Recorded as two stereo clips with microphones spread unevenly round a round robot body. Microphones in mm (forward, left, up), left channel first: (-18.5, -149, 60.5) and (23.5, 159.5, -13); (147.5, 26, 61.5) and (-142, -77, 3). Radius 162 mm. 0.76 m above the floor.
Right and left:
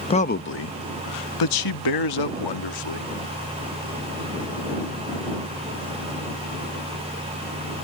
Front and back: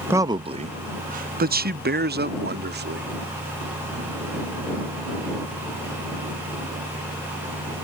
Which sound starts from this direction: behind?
A man speaking, at 0.1 s.